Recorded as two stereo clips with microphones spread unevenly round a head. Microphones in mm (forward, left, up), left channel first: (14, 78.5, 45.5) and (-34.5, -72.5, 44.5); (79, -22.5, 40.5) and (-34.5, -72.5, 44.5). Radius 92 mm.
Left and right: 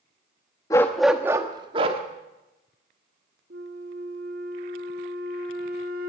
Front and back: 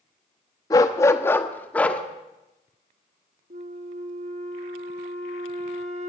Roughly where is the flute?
Behind right.